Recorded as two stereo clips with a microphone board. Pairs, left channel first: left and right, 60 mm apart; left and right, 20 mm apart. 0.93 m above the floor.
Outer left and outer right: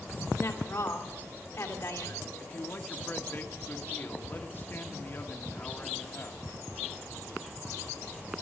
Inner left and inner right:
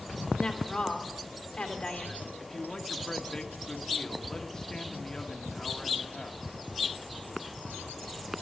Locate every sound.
0.4 s a woman speaking: 50° left (ahead or behind), 2.5 m
2.4 s a man speaking: 35° left (ahead or behind), 1.2 m